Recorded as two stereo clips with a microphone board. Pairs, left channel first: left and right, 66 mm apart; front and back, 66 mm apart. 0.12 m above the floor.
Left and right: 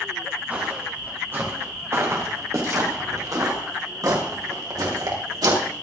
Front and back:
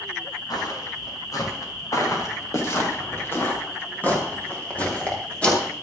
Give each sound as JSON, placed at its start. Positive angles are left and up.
{"t": 0.5, "sound": "footsteps", "azimuth_deg": -20, "distance_m": 4.5}